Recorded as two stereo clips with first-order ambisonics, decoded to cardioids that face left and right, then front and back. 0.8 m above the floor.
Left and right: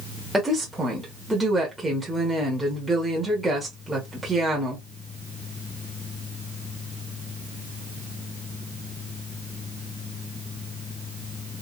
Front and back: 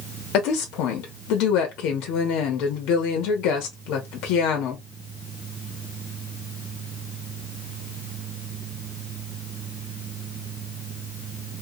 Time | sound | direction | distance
0.3 | a woman speaking | 5° right | 1.0 m